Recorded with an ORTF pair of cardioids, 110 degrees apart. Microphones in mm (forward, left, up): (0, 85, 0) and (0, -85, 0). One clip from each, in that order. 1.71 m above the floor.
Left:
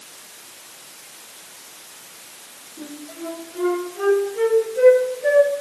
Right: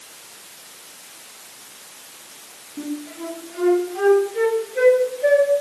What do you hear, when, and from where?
2.8 s a flute: 60° right, 3 m